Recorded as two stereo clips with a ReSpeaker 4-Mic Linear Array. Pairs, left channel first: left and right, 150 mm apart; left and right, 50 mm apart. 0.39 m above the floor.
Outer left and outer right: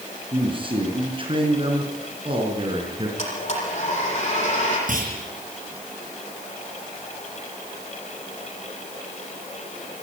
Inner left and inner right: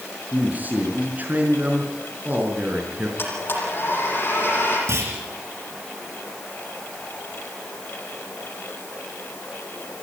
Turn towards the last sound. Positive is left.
turn(degrees=-65)  # may be behind; listen again after turning